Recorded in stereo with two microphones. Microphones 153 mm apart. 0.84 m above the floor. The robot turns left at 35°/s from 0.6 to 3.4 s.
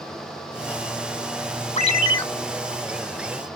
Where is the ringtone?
50° left (ahead or behind), 1.0 m; by 2.2 s 30° left (ahead or behind), 1.0 m.